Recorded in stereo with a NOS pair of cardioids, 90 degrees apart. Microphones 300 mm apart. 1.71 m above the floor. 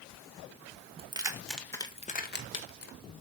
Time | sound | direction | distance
1.0 | keys jangling | 20° right | 1.9 m